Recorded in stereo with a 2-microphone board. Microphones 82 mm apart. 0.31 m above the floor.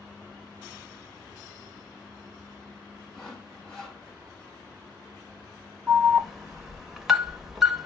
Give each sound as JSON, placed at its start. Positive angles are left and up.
{"t": 3.1, "sound": "sawing", "side_deg": 10, "distance_m": 2.5}
{"t": 5.9, "sound": "an alarm", "side_deg": -5, "distance_m": 0.6}